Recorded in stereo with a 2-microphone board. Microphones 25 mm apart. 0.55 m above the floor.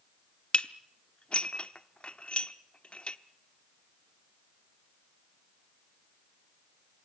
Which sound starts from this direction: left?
Dishes clattering, at 0.5 s.